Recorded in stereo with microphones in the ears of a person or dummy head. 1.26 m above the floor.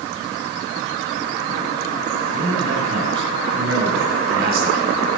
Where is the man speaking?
60° right (ahead or behind), 8.5 m.